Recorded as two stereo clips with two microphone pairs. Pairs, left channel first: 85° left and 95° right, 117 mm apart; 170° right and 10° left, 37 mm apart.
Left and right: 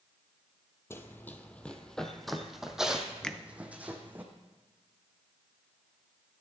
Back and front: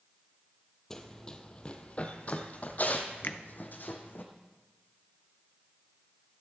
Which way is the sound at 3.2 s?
170° left.